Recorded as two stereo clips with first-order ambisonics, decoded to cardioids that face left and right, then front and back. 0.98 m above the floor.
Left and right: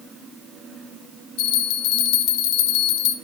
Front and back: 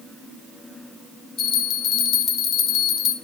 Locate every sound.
1.4 s a bell: 60° left, 0.6 m